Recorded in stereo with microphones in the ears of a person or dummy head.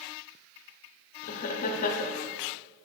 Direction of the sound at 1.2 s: 40° left (ahead or behind).